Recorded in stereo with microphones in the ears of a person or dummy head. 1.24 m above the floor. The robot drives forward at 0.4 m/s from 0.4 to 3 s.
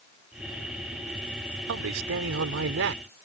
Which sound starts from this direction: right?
A man speaking, at 1.7 s.